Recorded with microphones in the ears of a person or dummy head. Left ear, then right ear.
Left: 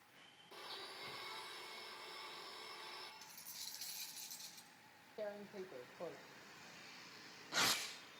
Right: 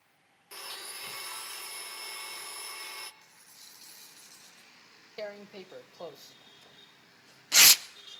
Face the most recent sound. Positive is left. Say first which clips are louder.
# right 6 dB
turn(degrees=-70)  # may be behind; listen again after turning